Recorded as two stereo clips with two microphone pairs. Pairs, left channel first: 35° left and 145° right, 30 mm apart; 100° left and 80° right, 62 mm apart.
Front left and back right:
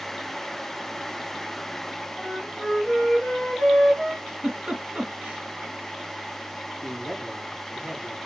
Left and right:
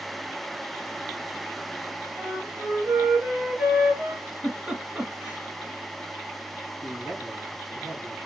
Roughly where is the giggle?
Behind right.